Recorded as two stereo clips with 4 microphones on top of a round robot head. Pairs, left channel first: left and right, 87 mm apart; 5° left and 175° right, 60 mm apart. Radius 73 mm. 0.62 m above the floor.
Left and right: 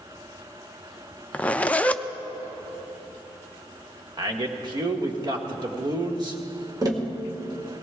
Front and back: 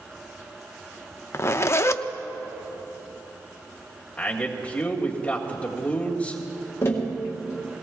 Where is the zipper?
20° left, 0.5 m.